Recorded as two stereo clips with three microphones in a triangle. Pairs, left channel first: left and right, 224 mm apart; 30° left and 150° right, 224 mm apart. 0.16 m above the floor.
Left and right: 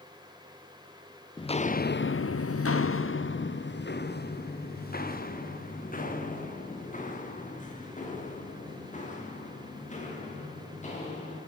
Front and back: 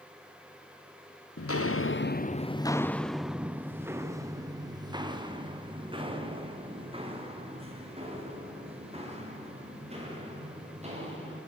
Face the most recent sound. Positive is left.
turn(degrees=150)